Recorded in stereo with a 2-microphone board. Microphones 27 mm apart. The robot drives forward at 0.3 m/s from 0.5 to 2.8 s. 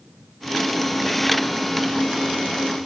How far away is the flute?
I don't hear a flute.